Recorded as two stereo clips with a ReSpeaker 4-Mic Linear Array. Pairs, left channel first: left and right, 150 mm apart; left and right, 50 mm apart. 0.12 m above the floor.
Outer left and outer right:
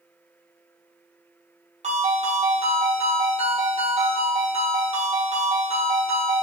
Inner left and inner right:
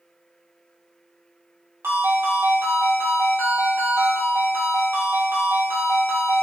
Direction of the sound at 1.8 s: 55° right (ahead or behind).